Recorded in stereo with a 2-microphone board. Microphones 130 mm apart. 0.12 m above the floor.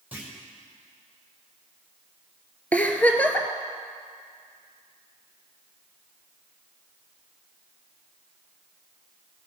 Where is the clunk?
15° right (ahead or behind), 4.5 m.